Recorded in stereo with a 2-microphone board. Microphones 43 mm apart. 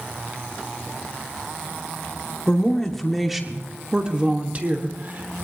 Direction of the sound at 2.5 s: 15° left (ahead or behind).